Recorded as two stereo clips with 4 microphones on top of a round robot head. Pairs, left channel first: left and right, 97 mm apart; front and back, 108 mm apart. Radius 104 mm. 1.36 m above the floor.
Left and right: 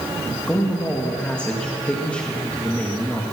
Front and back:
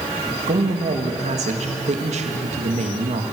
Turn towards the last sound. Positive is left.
turn(degrees=175)